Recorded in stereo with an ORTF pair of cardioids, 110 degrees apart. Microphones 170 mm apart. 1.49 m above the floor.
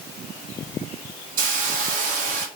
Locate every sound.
1.4 s a hiss: 55° right, 0.9 m